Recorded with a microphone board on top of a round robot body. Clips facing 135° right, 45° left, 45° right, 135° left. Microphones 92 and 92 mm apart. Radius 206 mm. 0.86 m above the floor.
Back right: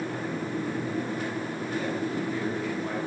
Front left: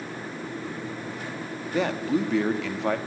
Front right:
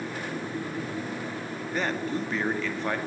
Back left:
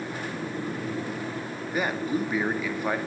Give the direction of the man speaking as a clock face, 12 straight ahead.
10 o'clock.